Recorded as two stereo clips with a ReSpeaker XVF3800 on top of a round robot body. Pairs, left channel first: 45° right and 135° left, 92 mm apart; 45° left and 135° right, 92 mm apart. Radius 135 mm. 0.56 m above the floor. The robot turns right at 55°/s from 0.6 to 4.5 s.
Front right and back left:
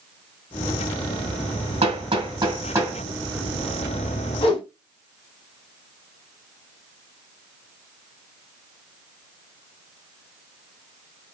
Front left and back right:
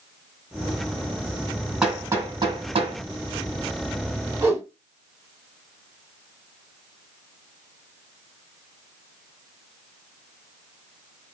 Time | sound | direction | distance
1.8 | hammering | 140° left | 3.5 m
4.4 | a whoosh | 80° right | 4.5 m